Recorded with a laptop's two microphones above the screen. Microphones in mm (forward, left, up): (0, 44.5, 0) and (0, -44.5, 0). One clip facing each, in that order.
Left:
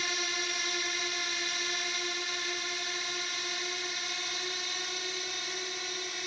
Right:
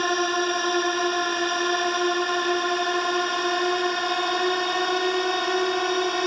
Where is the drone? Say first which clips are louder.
Right 14 dB; 50° right (ahead or behind); by 6.3 s 60° right (ahead or behind).